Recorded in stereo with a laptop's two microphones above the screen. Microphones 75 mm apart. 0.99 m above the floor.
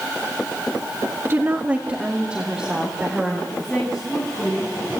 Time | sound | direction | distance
1.2 | a woman speaking | 35° right (ahead or behind) | 1.3 m
3.5 | a woman speaking | 10° left (ahead or behind) | 8.5 m